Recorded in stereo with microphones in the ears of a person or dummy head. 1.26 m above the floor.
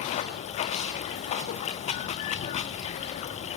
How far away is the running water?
About 1.2 m.